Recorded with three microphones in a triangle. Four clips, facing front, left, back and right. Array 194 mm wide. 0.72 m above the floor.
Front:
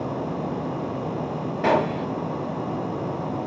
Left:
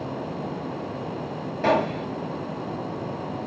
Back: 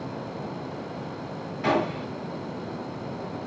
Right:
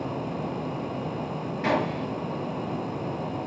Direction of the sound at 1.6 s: 35° left.